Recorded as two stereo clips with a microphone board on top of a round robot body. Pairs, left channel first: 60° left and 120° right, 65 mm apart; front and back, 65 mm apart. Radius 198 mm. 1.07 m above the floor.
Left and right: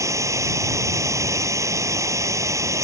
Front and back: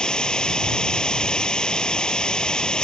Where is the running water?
80° right.